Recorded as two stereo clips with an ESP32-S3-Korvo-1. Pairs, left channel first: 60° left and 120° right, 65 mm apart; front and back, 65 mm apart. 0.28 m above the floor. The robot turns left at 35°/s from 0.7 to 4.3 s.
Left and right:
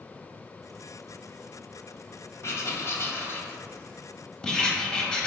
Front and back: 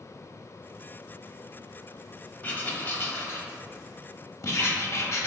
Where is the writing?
55° left, 0.6 m; by 5.3 s 10° right, 0.6 m.